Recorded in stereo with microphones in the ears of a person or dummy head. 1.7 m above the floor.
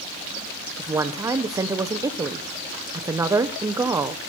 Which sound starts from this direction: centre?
A woman speaking, at 0.8 s.